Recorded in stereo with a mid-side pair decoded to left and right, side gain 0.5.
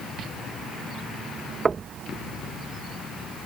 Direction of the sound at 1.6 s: 30° right.